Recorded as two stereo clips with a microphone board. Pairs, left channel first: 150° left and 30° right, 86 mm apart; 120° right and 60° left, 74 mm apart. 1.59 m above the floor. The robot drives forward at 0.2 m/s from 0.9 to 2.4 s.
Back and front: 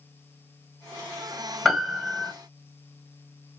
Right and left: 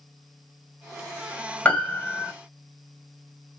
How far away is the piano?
About 1.2 m.